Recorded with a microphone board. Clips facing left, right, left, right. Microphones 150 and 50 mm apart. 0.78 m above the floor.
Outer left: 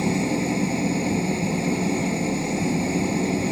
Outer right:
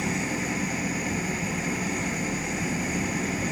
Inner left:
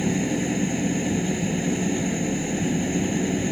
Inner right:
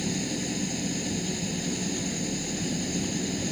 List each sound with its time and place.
0.0 s an engine running: 30° left (ahead or behind)